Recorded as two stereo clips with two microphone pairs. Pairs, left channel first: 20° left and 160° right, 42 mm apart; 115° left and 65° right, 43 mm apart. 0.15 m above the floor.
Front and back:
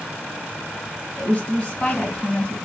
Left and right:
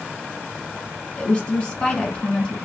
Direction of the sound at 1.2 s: 60° left.